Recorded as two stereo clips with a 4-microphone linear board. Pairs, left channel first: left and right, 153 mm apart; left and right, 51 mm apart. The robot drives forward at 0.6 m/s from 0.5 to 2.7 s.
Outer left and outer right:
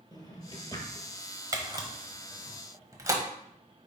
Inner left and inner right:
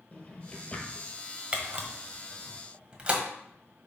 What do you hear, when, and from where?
0.1 s a drawer: 30° left (ahead or behind), 1.5 m; by 1.1 s 25° left (ahead or behind), 1.8 m
1.5 s a camera shutter: 25° right (ahead or behind), 1.3 m